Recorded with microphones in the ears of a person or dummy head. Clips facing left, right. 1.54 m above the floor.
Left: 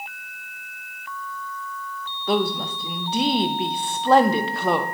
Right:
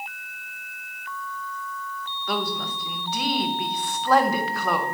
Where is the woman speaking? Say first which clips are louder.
Left 6 dB; 30° left (ahead or behind), 0.5 m.